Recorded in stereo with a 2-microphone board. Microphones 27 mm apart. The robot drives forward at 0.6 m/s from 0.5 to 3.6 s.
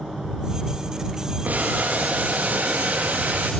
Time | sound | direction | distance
1.4 | boiling | 75° right (ahead or behind) | 7.5 m